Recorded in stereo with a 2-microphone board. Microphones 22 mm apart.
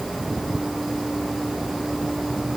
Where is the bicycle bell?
No bicycle bell in this recording.